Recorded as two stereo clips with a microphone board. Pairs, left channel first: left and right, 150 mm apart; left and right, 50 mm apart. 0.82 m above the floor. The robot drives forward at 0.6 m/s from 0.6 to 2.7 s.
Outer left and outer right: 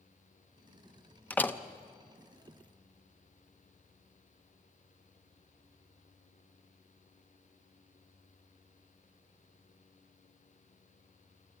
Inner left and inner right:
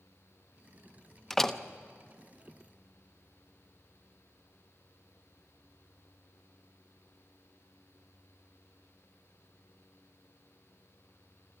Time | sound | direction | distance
1.3 | a door slam | 10° left (ahead or behind) | 0.7 m